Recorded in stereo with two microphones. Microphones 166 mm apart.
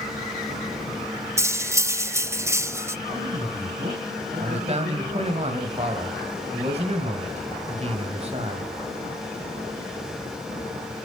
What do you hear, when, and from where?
1.4 s cutlery clinking: 15° right (ahead or behind), 0.5 m
3.1 s a man speaking: 50° right (ahead or behind), 5 m
4.4 s a man speaking: 40° right (ahead or behind), 1.9 m